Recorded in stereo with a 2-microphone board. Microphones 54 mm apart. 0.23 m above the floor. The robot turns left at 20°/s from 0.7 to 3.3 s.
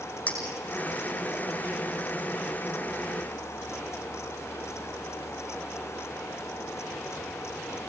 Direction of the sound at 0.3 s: 30° left (ahead or behind).